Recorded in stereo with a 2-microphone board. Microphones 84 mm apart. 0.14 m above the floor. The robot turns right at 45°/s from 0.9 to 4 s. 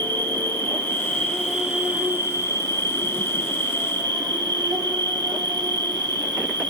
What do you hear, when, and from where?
0.0 s an insect: 155° left, 1.5 m; by 6.7 s 65° right, 1.5 m